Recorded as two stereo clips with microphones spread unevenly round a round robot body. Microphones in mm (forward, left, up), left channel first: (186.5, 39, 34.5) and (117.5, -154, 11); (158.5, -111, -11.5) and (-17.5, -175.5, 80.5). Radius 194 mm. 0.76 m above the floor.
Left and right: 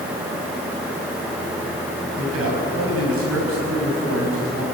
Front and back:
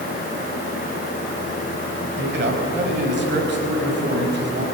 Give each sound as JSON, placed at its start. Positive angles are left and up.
{"t": 2.2, "sound": "a man speaking", "azimuth_deg": -130, "distance_m": 5.5}